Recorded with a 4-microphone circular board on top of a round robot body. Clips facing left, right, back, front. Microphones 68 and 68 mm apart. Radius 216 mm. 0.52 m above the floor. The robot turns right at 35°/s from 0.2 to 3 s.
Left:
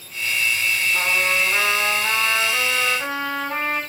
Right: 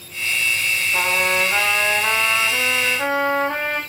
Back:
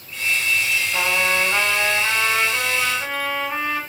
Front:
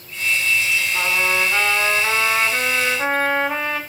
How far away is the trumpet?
About 5 m.